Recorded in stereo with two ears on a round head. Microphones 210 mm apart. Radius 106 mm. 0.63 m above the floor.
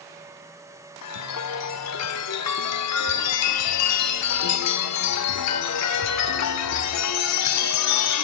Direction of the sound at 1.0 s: 80° left.